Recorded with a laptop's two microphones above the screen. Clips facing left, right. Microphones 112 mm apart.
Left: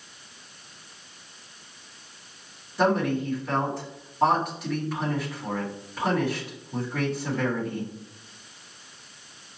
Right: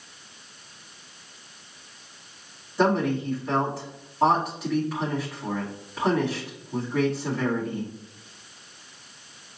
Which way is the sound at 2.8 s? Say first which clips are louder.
Right 1 dB; centre (ahead or behind).